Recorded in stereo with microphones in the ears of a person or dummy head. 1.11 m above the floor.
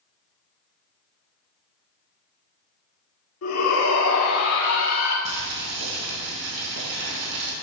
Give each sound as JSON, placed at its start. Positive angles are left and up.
{"t": 3.4, "sound": "a shout", "side_deg": 80, "distance_m": 2.5}
{"t": 5.2, "sound": "boiling", "side_deg": -70, "distance_m": 6.0}